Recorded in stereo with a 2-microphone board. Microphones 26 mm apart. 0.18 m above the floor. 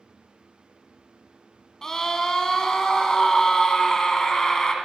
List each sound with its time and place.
1.8 s a scream: 20° left (ahead or behind), 1.1 m